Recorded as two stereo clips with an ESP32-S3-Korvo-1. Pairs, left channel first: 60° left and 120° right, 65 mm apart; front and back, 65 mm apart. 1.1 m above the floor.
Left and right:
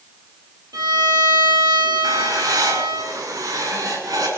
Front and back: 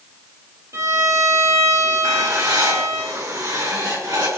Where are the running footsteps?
No running footsteps in this recording.